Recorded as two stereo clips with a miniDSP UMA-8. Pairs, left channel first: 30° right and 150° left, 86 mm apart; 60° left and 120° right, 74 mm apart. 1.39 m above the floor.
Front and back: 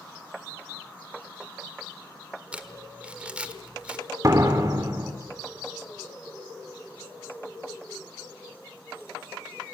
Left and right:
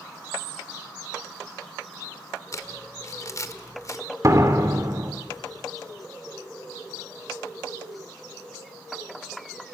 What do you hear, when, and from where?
2.5 s crumpling: 80° left, 1.4 m
4.2 s a door slam: 160° right, 2.5 m